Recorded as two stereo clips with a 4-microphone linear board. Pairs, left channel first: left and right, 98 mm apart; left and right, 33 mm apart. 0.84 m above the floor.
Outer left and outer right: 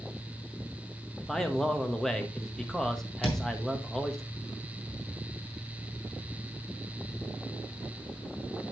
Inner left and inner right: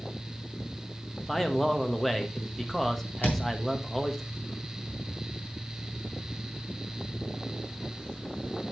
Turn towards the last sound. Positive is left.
turn(degrees=75)  # may be behind; listen again after turning